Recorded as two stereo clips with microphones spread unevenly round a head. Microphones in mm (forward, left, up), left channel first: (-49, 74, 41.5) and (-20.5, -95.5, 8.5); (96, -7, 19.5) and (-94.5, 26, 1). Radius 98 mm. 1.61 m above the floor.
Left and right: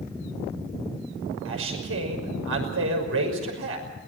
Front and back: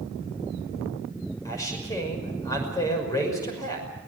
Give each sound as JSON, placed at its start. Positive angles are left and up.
{"t": 1.4, "sound": "a man speaking", "azimuth_deg": -85, "distance_m": 6.0}